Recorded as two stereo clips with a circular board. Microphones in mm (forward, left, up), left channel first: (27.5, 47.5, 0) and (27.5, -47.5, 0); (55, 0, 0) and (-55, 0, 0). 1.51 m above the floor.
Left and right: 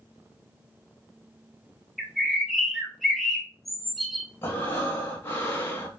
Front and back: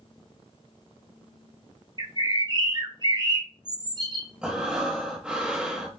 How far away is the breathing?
About 0.9 m.